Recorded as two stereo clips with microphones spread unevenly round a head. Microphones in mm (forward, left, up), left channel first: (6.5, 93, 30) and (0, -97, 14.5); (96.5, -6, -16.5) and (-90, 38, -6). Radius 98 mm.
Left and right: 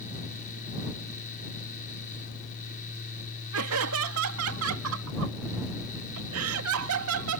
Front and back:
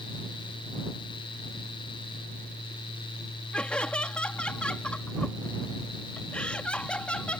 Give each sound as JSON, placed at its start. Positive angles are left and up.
{"t": 3.5, "sound": "laughter", "azimuth_deg": -100}